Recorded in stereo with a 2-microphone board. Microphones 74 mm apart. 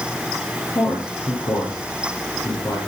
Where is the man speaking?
55° left (ahead or behind), 10 m.